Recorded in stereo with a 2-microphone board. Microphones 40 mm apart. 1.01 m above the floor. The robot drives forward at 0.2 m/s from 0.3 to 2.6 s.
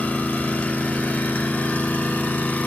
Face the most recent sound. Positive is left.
turn(degrees=55)  # may be behind; listen again after turning